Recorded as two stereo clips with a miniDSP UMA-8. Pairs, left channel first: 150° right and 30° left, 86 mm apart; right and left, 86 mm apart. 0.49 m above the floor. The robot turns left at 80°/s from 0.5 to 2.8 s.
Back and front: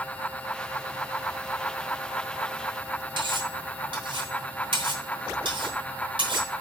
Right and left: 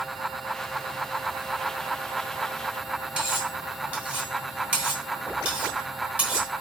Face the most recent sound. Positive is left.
turn(degrees=15)